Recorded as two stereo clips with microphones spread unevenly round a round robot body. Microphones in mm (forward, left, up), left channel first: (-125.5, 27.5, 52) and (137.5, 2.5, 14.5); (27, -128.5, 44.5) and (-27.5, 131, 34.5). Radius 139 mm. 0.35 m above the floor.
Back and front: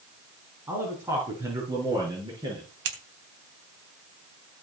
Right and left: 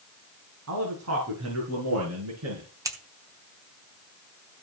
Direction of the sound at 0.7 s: 75° left.